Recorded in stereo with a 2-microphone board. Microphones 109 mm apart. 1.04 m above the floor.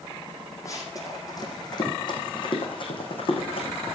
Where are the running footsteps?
30° left (ahead or behind), 3 m; by 4.0 s 55° left (ahead or behind), 4.5 m.